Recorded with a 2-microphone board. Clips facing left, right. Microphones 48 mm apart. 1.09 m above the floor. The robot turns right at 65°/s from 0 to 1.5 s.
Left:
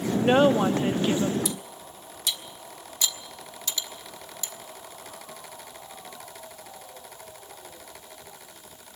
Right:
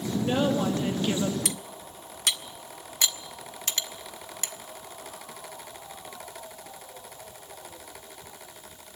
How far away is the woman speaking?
About 1.8 m.